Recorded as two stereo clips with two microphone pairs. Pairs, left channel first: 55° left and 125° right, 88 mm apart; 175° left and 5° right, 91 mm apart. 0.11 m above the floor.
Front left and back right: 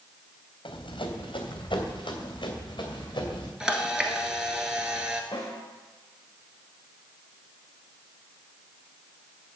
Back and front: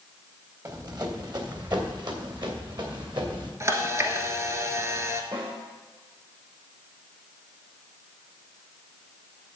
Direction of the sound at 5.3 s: 25° left.